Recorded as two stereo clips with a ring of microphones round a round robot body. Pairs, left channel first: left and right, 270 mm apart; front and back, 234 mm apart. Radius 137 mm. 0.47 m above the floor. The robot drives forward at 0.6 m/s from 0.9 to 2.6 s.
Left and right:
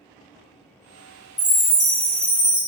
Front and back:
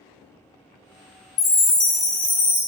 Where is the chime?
20° left, 1.7 m; by 2.6 s 45° left, 1.4 m.